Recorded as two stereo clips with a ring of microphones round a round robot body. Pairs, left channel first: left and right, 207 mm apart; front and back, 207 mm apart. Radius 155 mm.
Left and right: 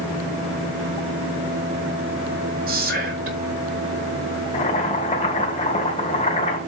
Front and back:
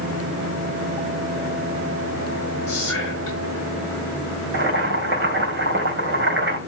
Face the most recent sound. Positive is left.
turn(degrees=160)